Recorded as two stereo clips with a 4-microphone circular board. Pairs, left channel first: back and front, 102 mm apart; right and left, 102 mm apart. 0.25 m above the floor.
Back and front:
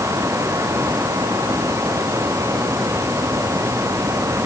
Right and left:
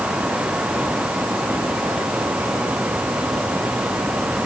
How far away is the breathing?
I don't hear breathing.